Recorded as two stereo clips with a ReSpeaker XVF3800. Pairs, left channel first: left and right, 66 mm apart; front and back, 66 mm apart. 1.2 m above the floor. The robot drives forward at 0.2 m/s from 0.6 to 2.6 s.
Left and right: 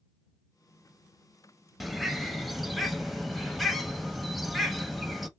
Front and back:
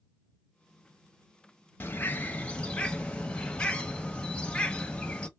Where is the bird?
Straight ahead, 0.6 m.